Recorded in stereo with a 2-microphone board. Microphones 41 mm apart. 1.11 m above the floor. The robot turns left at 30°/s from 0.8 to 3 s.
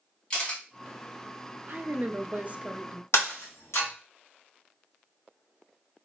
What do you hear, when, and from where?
0.3 s a camera shutter: 20° left (ahead or behind), 1.7 m
1.7 s a woman speaking: 110° right, 0.5 m; by 3.0 s 150° right, 0.5 m
3.1 s breaking glass: 80° left, 1.5 m